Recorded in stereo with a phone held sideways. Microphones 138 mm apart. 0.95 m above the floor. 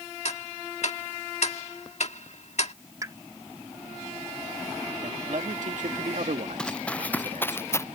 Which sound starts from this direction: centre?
Running footsteps, at 6.6 s.